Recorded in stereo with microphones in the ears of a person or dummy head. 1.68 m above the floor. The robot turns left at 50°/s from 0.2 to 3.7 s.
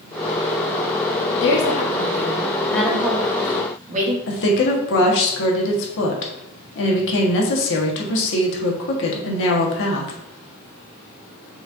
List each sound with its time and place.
1.4 s a woman speaking: 70° left, 1.1 m; by 4.2 s 45° right, 1.1 m
4.3 s a woman speaking: 70° left (ahead or behind), 1.2 m